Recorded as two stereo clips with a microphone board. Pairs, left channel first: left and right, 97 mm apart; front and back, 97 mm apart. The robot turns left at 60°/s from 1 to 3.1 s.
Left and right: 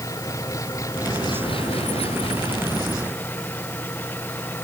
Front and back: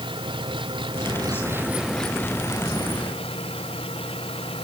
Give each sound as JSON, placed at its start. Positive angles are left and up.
{"t": 0.0, "sound": "an engine running", "azimuth_deg": 145}